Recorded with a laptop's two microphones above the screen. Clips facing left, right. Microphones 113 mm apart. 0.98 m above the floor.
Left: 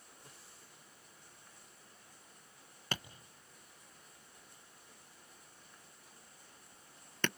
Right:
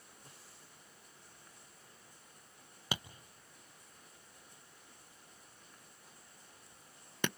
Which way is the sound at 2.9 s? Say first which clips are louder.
Right 1 dB; 10° right (ahead or behind).